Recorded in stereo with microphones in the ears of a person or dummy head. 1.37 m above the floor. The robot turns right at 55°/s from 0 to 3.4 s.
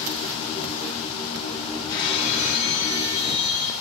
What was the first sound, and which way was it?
Breaking glass, 60° left.